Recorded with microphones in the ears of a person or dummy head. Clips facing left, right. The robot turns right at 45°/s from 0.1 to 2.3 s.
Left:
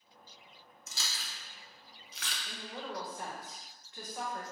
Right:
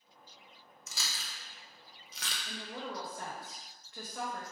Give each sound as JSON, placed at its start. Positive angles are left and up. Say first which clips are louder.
{"t": 0.9, "sound": "chewing", "louder": "even", "side_deg": -65, "distance_m": 0.8}
{"t": 2.5, "sound": "a woman speaking", "louder": "right 1 dB", "side_deg": -55, "distance_m": 1.6}